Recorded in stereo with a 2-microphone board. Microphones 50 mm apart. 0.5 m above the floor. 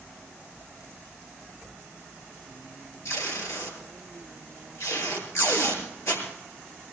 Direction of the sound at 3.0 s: 70° left (ahead or behind).